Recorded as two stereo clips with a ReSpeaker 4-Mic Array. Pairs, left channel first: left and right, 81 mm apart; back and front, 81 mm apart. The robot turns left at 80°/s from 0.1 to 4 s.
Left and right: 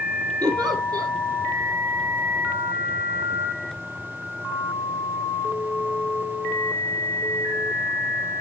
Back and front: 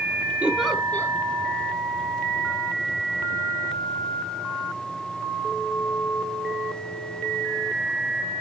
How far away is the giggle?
About 2 m.